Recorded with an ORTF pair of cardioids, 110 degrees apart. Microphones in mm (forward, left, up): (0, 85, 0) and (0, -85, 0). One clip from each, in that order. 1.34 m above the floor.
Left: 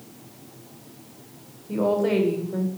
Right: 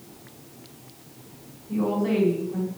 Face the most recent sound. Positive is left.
turn(degrees=65)